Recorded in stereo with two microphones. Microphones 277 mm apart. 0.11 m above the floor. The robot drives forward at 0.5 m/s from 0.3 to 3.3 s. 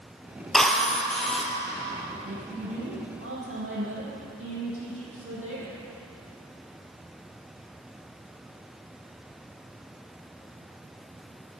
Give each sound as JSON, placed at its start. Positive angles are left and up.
{"t": 0.5, "sound": "a drill", "side_deg": 0, "distance_m": 1.4}
{"t": 2.2, "sound": "a woman speaking", "side_deg": -55, "distance_m": 4.0}